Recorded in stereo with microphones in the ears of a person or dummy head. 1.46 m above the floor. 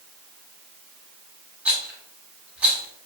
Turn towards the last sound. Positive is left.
turn(degrees=-5)  # may be behind; listen again after turning